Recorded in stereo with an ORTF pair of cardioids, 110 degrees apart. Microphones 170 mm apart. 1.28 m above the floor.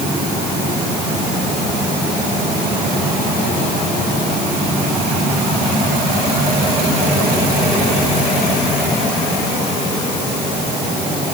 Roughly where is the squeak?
No squeak in this recording.